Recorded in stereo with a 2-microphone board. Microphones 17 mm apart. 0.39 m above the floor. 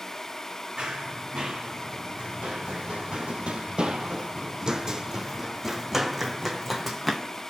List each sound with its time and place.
0.8 s running footsteps: 55° right (ahead or behind), 1.8 m; by 7.4 s 5° right (ahead or behind), 2 m